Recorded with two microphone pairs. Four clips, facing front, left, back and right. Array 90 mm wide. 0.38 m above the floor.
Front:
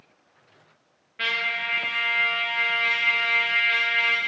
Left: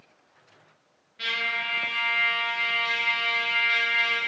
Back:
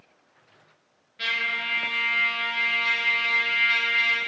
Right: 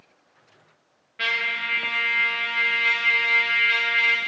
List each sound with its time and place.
1.2 s a trumpet: 50° right, 7 m